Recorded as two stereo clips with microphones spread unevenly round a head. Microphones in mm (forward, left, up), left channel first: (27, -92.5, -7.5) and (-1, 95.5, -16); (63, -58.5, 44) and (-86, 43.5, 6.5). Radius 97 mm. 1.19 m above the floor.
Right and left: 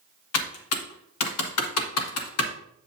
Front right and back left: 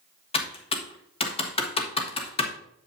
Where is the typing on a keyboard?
95° right, 1.3 m.